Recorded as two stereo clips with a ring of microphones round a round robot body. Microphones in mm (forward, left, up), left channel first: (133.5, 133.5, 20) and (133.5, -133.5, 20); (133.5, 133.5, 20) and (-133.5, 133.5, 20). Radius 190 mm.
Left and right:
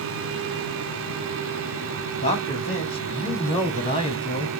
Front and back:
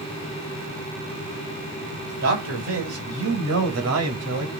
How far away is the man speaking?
About 5 m.